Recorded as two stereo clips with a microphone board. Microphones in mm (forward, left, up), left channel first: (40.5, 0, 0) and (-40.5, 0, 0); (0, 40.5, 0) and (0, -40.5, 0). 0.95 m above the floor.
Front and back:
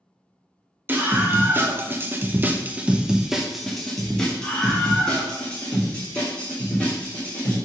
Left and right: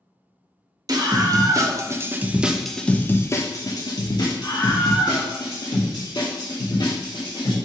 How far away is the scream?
About 1.3 m.